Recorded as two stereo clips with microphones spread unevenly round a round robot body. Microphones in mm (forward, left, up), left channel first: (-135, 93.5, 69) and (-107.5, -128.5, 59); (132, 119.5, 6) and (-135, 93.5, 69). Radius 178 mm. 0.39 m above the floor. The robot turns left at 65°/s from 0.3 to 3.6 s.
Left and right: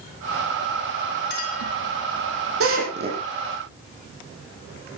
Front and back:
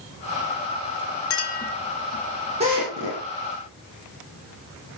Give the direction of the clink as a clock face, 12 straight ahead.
11 o'clock.